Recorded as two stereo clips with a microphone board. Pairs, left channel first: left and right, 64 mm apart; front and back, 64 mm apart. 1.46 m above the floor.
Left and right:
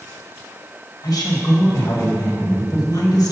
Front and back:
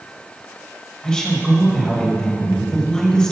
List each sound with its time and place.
1.0 s a woman speaking: 75° left, 1.3 m